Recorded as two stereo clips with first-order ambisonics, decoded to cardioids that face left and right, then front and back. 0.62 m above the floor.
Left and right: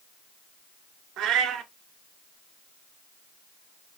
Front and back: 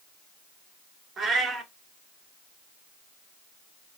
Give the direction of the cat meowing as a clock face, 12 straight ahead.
4 o'clock.